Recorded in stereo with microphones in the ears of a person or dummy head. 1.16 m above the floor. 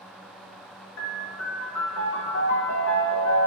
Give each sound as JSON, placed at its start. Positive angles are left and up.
{"t": 1.0, "sound": "a piano", "side_deg": 70, "distance_m": 3.5}